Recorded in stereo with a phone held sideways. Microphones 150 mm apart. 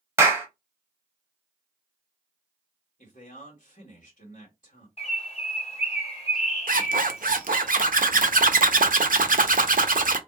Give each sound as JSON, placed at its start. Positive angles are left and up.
{"t": 0.2, "sound": "a clap", "side_deg": -15, "distance_m": 0.9}
{"t": 3.0, "sound": "a man speaking", "side_deg": 60, "distance_m": 1.5}
{"t": 5.0, "sound": "a bird", "side_deg": 40, "distance_m": 1.1}
{"t": 6.7, "sound": "a zipper", "side_deg": -65, "distance_m": 0.5}